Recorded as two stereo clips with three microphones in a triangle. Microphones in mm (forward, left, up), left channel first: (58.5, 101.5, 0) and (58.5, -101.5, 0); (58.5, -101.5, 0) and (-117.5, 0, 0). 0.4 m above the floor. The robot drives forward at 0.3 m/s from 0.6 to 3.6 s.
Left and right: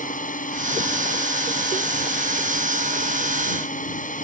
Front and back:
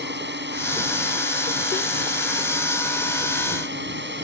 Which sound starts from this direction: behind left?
A drone, at 0.0 s.